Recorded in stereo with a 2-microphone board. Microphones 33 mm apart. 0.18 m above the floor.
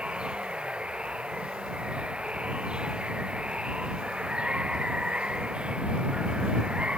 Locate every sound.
0.0 s running water: 30° right (ahead or behind)